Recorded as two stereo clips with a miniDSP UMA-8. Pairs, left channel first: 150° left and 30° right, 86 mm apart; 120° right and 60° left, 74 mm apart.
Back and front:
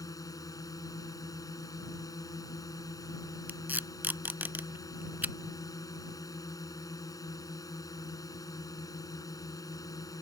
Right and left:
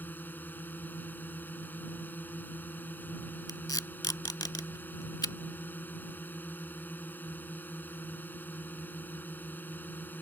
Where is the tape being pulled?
95° right.